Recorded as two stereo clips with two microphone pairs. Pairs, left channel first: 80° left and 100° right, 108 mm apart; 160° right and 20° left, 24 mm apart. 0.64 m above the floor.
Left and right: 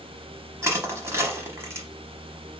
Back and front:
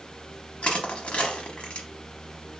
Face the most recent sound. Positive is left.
turn(degrees=-160)